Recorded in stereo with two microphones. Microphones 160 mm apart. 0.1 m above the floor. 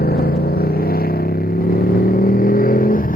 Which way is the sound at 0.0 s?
75° left (ahead or behind).